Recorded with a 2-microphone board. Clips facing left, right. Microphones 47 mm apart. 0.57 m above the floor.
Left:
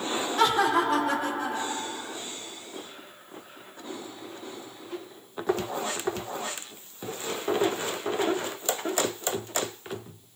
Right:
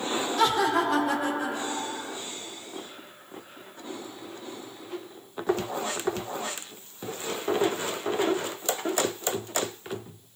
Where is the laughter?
30° left (ahead or behind), 0.7 m; by 2.2 s 30° right (ahead or behind), 1.1 m.